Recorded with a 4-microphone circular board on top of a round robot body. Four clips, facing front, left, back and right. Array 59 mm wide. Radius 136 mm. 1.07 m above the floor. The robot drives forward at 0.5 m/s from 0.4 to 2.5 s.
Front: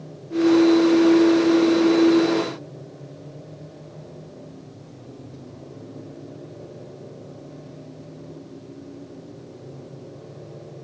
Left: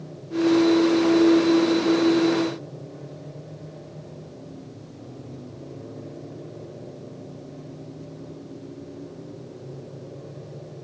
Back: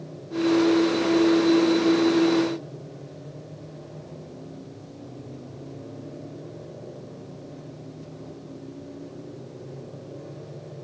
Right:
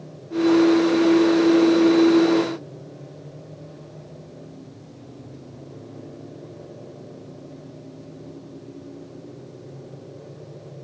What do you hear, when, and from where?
Only background noise.